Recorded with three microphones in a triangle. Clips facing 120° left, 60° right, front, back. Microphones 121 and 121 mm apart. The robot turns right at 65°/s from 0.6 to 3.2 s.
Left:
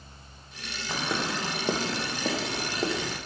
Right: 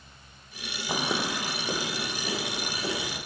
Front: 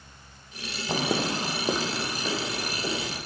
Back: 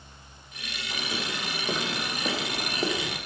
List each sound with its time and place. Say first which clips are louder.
0.9 s footsteps: right 1 dB, front 8 dB; 5° left, 0.6 m; by 3.2 s 165° left, 3.5 m